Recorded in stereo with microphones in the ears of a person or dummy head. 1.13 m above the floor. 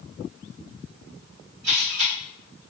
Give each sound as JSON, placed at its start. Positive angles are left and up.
{"t": 1.6, "sound": "a camera shutter", "side_deg": -70, "distance_m": 1.7}